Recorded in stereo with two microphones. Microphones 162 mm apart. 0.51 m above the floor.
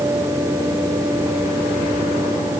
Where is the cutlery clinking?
No cutlery clinking in this recording.